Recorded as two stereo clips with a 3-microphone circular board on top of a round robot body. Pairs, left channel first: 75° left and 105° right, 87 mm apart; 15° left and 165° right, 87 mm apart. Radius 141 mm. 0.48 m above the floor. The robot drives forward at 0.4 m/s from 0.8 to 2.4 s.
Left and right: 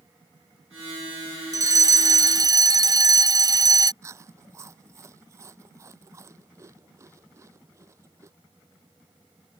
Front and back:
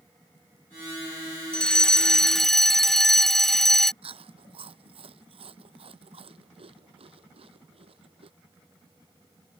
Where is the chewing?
165° right.